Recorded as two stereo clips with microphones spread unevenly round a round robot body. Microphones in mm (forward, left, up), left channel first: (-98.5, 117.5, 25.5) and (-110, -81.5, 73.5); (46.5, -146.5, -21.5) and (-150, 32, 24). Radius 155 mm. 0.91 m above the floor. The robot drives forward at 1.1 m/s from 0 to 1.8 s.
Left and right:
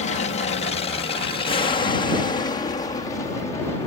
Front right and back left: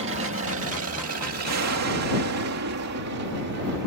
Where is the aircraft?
95° left; by 3.9 s 150° left.